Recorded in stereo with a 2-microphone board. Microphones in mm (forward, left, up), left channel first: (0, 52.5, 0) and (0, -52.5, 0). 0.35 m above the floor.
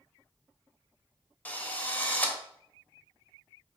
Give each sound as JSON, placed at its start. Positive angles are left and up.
{"t": 1.4, "sound": "a drill", "side_deg": 15, "distance_m": 1.1}